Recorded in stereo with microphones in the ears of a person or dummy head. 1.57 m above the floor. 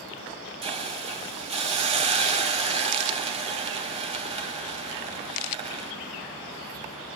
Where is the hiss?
35° right (ahead or behind), 2 m.